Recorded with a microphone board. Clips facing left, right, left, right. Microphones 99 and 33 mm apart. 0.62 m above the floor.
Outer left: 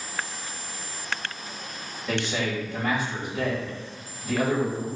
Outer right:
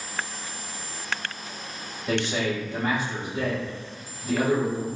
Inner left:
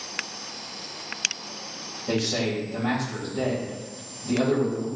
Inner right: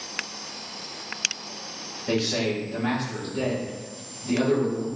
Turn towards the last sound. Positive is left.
turn(degrees=-50)  # may be behind; listen again after turning